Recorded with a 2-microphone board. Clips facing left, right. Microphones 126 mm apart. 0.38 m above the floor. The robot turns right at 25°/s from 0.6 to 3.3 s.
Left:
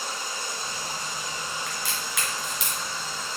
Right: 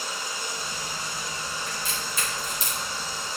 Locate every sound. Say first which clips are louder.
0.0 s running water: even; 130° left, 3.5 m; by 3.4 s 165° right, 3.5 m
1.7 s a crack: even; 80° left, 2.5 m; by 3.4 s 55° left (ahead or behind), 2.5 m